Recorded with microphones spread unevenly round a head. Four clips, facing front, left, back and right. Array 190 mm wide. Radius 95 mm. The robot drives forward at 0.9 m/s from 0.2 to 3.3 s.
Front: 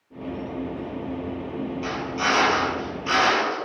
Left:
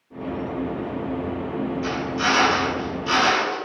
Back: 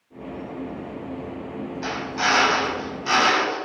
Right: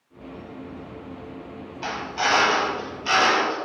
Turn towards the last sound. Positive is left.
turn(degrees=-120)